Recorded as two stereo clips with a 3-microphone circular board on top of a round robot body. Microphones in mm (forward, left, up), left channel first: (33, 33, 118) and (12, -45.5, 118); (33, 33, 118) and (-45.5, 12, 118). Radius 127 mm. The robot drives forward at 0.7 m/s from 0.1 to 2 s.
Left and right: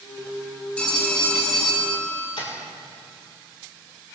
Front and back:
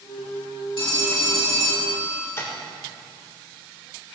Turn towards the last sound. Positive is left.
turn(degrees=75)